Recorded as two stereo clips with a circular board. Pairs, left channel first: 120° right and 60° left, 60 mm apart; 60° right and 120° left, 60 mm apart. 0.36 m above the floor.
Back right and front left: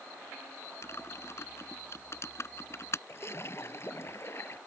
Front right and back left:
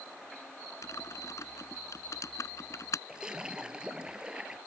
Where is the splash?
165° right.